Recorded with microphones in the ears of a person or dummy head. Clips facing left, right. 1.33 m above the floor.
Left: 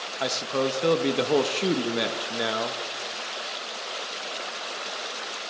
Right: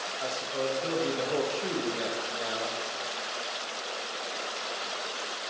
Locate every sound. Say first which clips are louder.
0.2 s a man speaking: left 6 dB; 75° left (ahead or behind), 2 m